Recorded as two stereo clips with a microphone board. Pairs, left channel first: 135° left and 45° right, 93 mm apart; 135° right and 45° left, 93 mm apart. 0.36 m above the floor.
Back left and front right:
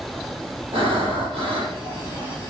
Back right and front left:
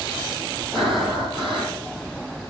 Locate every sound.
0.7 s breathing: 45° right, 8.5 m